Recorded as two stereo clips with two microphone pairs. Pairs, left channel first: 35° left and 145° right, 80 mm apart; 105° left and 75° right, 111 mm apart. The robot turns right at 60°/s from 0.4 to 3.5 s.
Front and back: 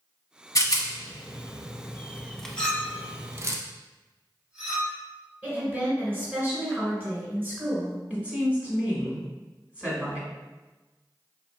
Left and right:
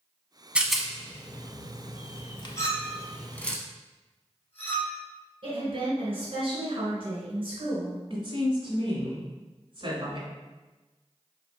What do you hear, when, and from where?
0.6 s a rattle: 5° left, 0.6 m; by 3.6 s straight behind, 0.6 m
2.6 s a clink: 95° left, 1.1 m; by 5.0 s 150° left, 1.1 m
5.4 s a woman speaking: 90° right, 1.9 m
8.1 s a woman speaking: 85° right, 1.5 m